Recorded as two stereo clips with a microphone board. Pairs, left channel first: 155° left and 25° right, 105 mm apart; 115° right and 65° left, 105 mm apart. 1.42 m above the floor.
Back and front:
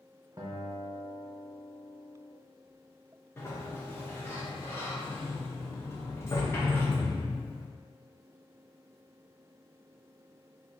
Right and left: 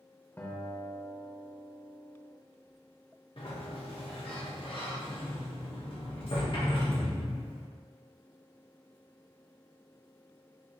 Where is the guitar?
55° right, 0.6 m.